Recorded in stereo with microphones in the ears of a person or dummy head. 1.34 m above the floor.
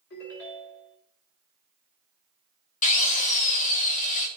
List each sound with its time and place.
0.1 s a ringtone: 55° left (ahead or behind), 2.5 m
2.8 s a drill: 40° left (ahead or behind), 1.3 m